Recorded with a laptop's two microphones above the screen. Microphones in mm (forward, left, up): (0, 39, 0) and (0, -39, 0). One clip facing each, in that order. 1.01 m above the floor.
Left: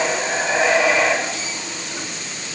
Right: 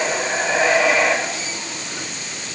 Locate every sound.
Only background noise.